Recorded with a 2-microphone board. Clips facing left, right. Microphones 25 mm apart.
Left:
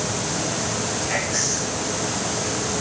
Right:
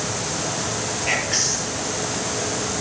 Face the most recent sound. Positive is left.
turn(degrees=-65)  # may be behind; listen again after turning